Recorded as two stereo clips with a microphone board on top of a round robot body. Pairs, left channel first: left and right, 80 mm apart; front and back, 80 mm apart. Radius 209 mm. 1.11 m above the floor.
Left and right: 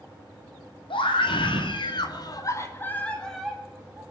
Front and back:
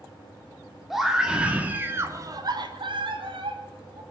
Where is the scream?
95° left, 3 m; by 4.0 s 165° right, 2.5 m.